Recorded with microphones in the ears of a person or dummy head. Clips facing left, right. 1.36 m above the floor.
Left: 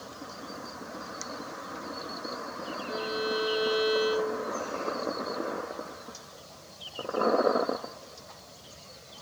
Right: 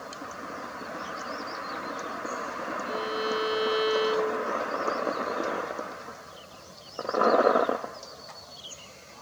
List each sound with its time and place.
2.9 s a violin: 80° right, 5 m